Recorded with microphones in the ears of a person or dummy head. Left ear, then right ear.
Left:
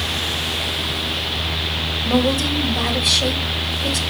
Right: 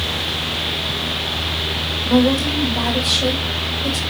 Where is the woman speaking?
5° left (ahead or behind), 2 m.